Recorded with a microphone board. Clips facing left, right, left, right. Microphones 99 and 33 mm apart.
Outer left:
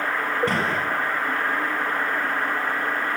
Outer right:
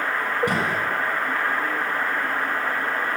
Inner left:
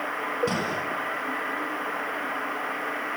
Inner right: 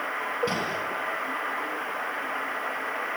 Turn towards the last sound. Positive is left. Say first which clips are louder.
# even, inner left 1 dB
turn(degrees=-15)  # may be behind; listen again after turning